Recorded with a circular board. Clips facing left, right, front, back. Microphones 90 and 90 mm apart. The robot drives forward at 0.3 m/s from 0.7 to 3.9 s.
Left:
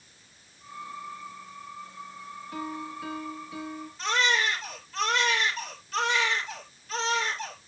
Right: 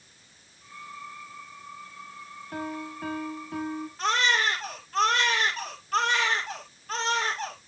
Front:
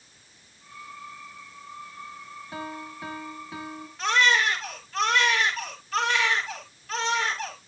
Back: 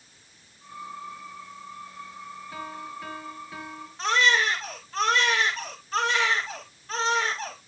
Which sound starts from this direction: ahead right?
A piano, at 2.5 s.